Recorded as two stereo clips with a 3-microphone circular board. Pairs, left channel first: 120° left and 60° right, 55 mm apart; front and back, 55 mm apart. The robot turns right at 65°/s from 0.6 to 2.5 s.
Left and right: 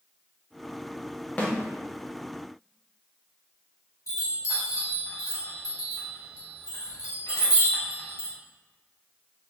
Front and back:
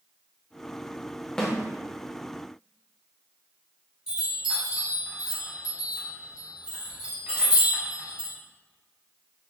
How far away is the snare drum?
About 0.7 m.